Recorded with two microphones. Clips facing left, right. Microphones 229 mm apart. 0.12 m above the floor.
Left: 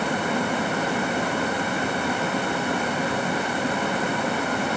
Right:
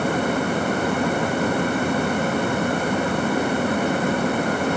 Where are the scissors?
I don't hear scissors.